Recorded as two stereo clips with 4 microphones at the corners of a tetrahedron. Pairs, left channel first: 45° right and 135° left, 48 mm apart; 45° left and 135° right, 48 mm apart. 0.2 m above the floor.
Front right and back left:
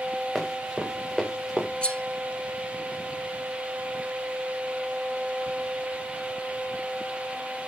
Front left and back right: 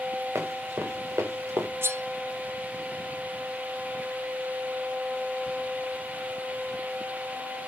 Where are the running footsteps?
145° right, 6.5 m; by 1.7 s 150° right, 6 m.